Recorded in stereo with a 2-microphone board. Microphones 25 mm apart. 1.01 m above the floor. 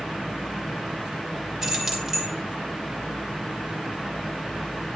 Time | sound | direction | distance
1.6 | keys jangling | 10° right (ahead or behind) | 2 m